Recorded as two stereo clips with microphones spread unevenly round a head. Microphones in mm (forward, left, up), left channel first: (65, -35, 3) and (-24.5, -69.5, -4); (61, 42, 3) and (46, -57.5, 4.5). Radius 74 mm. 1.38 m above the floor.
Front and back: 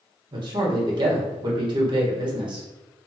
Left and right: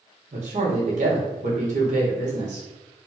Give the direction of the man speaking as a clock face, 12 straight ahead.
4 o'clock.